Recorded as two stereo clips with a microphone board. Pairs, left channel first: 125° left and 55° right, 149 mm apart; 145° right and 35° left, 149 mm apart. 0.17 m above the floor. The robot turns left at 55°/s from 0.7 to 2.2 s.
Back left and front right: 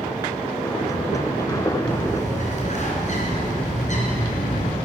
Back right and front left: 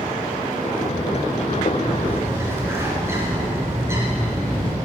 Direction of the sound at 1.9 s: 125° left.